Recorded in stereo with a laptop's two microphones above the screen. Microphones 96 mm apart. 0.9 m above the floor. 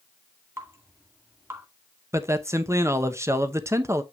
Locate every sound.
0.6 s dripping: 25° right (ahead or behind), 2 m
2.1 s a man speaking: 25° right (ahead or behind), 0.8 m